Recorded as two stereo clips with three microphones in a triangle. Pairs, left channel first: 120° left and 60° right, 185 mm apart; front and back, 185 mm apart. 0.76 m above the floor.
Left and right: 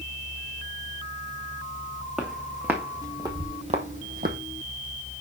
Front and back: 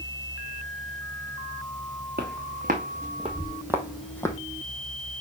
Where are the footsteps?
150° right, 2.5 m; by 4.4 s 65° right, 1.2 m.